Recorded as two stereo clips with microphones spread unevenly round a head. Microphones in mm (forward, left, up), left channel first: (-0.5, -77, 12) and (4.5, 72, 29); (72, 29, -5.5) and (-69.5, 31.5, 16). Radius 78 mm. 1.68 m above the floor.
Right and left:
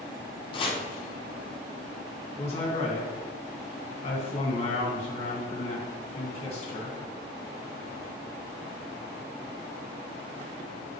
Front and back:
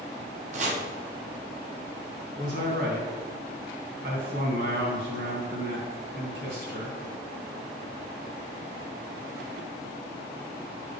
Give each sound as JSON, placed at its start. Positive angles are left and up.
{"t": 0.5, "sound": "chopping", "azimuth_deg": -150, "distance_m": 1.2}
{"t": 2.4, "sound": "a man speaking", "azimuth_deg": -145, "distance_m": 2.5}